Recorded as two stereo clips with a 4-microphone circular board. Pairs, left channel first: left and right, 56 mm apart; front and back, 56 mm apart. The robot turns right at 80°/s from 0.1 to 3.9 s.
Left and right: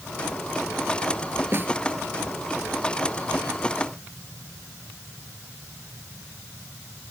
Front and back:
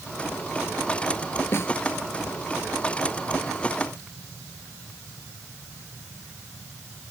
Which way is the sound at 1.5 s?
50° right.